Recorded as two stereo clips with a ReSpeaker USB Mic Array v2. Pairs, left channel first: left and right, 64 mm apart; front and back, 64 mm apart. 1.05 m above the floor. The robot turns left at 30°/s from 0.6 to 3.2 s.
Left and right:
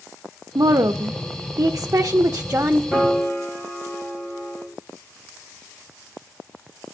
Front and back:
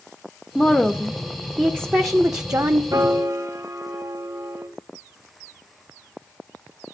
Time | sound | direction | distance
0.6 | a woman speaking | 85° right | 0.6 m
2.9 | a piano | 160° left | 2 m